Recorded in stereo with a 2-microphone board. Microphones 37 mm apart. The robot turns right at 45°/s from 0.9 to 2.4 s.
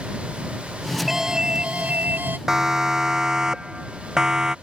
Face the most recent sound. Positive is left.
turn(degrees=-15)  # may be behind; listen again after turning